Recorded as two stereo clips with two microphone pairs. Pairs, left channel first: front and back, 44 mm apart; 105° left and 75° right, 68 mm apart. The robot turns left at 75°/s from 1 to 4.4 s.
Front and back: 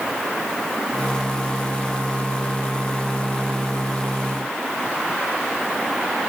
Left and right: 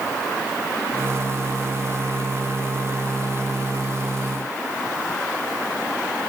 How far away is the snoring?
I don't hear snoring.